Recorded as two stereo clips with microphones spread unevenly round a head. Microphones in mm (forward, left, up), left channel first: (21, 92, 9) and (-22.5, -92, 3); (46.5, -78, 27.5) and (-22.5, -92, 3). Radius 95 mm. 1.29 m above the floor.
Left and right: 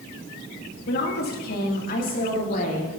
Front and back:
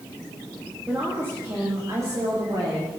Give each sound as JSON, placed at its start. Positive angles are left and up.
{"t": 0.9, "sound": "a woman speaking", "azimuth_deg": 115, "distance_m": 2.0}